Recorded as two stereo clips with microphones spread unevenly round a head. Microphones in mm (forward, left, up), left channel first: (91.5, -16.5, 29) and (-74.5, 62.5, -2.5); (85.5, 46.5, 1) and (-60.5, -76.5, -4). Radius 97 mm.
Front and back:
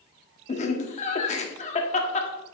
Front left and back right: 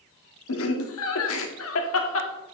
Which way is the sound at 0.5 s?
30° left.